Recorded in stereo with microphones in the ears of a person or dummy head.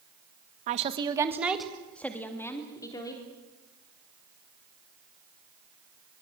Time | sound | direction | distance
0.7 | a woman speaking | 40° right (ahead or behind) | 1.4 m